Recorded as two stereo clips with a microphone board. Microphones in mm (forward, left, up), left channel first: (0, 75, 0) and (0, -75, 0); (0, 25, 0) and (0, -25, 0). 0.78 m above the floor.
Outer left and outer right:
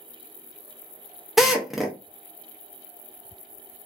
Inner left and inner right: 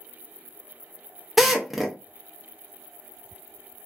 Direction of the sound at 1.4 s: Centre (ahead or behind).